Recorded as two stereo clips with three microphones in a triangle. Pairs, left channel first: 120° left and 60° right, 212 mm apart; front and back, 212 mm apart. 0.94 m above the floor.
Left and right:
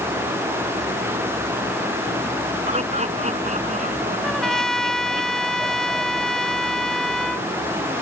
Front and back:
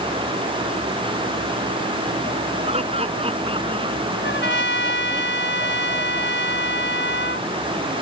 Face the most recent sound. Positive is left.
turn(degrees=30)